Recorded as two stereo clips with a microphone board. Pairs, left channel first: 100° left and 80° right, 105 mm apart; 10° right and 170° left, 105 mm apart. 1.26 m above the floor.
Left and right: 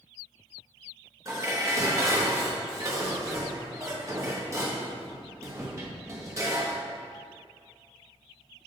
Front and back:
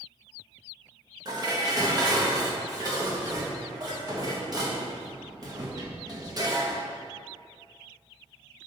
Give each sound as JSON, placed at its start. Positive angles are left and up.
{"t": 1.2, "sound": "dishes clattering", "azimuth_deg": -140, "distance_m": 1.1}